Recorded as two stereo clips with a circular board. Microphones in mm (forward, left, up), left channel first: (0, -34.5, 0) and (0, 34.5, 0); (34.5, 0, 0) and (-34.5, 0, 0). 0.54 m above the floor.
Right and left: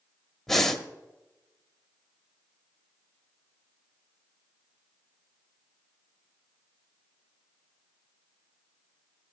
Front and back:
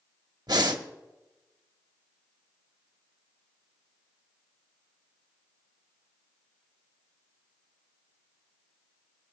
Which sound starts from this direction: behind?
Breathing, at 0.5 s.